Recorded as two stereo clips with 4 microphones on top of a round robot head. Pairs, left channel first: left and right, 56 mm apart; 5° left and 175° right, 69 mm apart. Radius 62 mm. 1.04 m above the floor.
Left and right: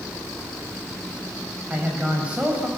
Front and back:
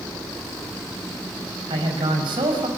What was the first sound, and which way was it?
A man speaking, 165° right.